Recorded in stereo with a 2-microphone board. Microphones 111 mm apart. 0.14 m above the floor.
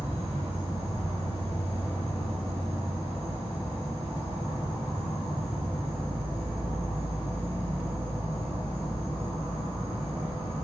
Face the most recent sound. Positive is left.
turn(degrees=-50)  # may be behind; listen again after turning